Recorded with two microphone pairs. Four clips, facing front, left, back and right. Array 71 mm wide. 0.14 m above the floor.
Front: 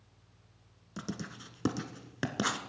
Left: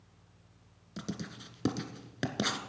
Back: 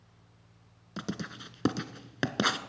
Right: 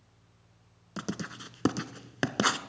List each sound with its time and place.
1.0 s writing: 115° right, 0.6 m